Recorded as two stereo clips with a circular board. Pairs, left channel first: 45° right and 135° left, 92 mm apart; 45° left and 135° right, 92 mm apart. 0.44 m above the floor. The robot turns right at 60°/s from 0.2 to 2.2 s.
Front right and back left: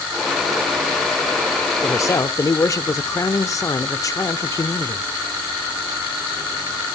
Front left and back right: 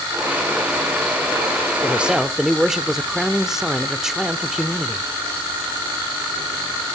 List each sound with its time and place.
1.8 s a man speaking: 75° right, 0.8 m; by 5.1 s 55° right, 0.8 m